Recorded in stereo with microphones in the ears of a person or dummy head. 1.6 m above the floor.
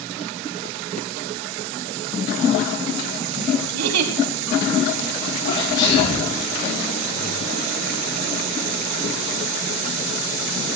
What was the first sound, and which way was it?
A giggle, 75° right (ahead or behind).